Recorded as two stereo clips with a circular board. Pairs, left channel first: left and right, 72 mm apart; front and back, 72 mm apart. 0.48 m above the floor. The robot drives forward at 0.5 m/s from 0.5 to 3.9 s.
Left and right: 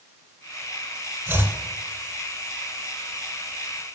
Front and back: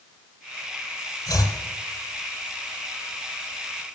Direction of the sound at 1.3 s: 30° right.